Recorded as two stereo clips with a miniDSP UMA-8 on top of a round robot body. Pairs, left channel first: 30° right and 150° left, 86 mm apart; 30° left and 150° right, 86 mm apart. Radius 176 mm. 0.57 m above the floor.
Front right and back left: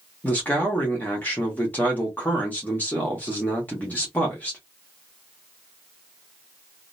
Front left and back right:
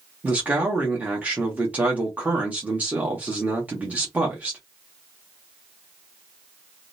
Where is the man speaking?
90° right, 1.2 m.